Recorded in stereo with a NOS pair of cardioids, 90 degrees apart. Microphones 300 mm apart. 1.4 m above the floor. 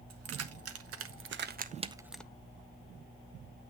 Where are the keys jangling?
60° right, 1.4 m; by 2.2 s 5° left, 0.5 m.